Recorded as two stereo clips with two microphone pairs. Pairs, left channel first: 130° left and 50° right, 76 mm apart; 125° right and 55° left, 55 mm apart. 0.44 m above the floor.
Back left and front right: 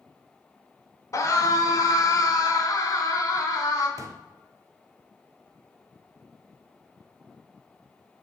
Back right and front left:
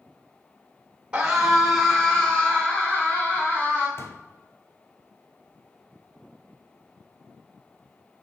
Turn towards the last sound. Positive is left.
turn(degrees=-85)